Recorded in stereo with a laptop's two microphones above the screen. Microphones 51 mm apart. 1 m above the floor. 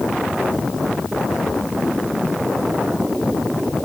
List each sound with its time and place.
Only background noise.